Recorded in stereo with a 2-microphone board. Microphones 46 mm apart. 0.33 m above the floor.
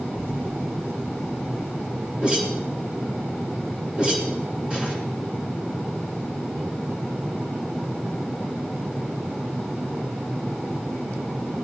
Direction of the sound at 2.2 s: 30° right (ahead or behind).